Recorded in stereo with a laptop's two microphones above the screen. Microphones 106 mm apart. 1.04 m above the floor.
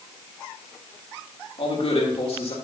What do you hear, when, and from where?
1.6 s a man speaking: 75° left (ahead or behind), 3.5 m